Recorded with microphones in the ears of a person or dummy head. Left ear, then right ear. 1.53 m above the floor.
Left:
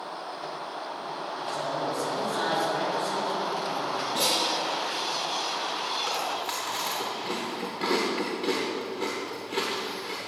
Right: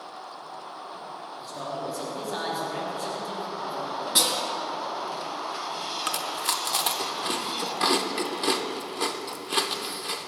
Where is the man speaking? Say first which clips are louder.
Left 3 dB; 25° right (ahead or behind), 3 m.